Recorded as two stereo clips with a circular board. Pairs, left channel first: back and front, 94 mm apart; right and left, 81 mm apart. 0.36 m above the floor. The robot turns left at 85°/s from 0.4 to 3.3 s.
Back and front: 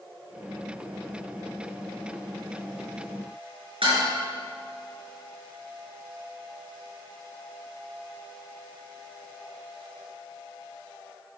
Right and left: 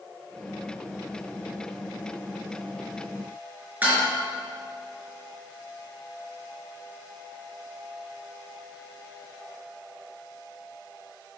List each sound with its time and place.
3.8 s dishes clattering: 20° left, 4 m